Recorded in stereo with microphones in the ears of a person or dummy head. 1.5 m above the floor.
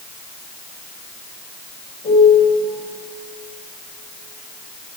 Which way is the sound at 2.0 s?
40° left (ahead or behind).